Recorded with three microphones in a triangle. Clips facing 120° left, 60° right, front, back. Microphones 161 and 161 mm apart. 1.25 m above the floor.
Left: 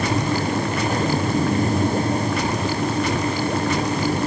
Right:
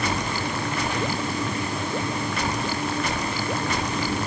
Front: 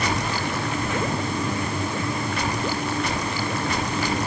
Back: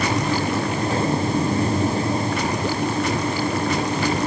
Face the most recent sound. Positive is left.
No sound to turn to.